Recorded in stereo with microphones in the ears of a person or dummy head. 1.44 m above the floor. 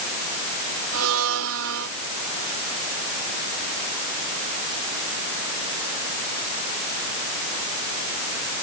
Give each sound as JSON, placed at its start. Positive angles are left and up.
{"t": 0.9, "sound": "a blender", "side_deg": -80}